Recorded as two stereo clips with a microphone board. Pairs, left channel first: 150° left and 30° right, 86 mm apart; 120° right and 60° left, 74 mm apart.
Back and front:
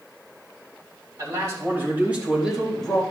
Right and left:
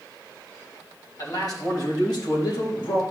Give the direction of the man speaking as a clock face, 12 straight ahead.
3 o'clock.